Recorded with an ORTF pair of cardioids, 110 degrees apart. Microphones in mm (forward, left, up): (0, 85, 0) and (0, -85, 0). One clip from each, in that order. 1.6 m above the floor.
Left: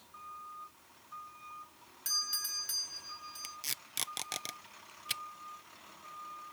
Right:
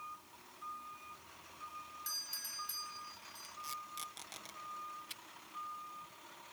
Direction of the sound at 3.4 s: 65° left.